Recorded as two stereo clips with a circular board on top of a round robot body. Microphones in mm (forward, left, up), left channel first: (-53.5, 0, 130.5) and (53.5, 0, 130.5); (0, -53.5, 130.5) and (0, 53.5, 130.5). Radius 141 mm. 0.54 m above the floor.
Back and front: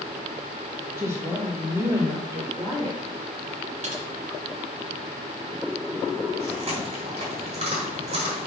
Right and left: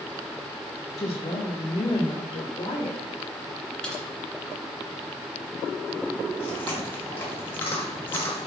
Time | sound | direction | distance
1.0 | a woman speaking | 50° right | 1.4 m
3.8 | typing on a keyboard | 5° right | 2 m
6.4 | chewing | 20° right | 2.5 m